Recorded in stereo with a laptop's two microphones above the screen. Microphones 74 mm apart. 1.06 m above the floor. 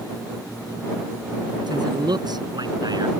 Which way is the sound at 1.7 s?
65° right (ahead or behind).